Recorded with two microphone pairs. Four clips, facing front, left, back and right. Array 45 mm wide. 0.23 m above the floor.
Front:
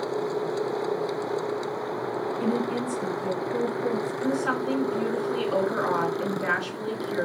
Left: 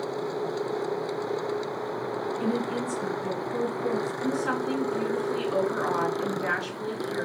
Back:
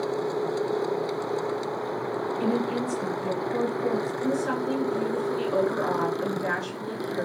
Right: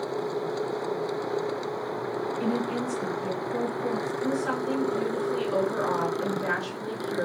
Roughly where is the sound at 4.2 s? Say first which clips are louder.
Right 1 dB, front 1 dB; ahead.